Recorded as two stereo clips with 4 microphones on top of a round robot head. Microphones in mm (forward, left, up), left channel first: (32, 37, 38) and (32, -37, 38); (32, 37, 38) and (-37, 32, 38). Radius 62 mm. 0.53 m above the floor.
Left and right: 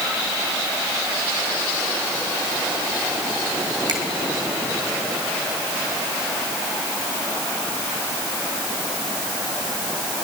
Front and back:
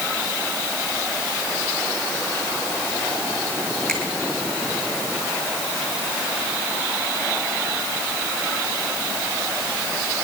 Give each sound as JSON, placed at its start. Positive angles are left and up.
{"t": 3.9, "sound": "a finger snap", "azimuth_deg": -75, "distance_m": 3.0}